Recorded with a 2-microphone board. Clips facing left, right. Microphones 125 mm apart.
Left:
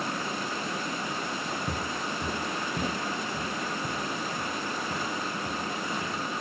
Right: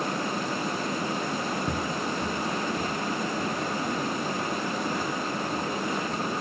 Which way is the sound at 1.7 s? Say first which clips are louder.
Right 4 dB; 5° right (ahead or behind).